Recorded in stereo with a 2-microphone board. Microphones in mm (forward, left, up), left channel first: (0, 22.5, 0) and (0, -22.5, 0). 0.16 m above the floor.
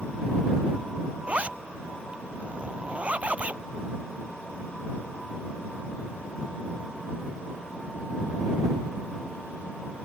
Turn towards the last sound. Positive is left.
turn(degrees=-30)  # may be behind; listen again after turning